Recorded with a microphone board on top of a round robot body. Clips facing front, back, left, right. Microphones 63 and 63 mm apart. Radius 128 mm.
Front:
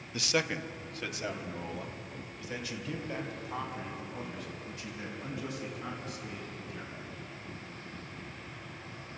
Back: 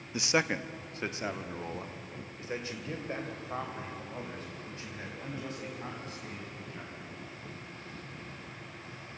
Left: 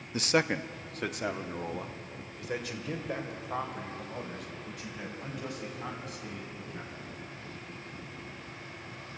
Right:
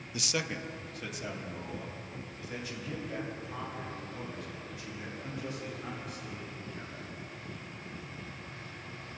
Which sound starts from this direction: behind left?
A man speaking, at 0.1 s.